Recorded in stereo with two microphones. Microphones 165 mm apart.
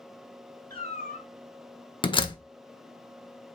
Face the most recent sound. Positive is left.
turn(degrees=30)  # may be behind; listen again after turning